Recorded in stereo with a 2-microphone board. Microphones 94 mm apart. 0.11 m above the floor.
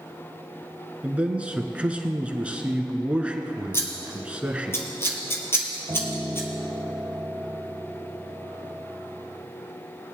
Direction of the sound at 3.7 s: 25° left (ahead or behind).